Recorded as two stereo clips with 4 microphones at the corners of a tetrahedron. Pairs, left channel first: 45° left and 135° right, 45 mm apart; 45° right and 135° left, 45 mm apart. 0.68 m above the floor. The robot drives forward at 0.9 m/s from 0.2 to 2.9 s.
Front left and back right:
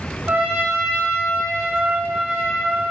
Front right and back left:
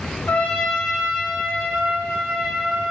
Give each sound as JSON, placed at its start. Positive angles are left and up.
{"t": 0.3, "sound": "a trumpet", "azimuth_deg": -85, "distance_m": 0.5}